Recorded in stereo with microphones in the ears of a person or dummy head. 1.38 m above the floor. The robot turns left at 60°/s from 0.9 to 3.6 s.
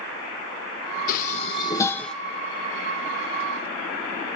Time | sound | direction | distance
1.1 | dishes clattering | 55° left (ahead or behind) | 0.8 m